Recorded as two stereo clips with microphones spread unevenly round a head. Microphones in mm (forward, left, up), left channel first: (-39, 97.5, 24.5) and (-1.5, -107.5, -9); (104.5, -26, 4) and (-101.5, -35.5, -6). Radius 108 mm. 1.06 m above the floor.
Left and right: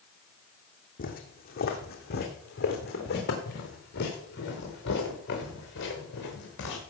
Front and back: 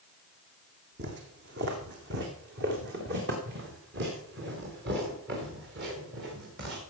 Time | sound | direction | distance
1.0 | footsteps | 140° left | 2.5 m